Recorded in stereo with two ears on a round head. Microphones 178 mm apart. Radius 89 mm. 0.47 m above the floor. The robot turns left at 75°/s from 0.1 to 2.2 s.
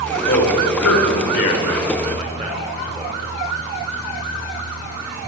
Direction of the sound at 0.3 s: 55° left (ahead or behind).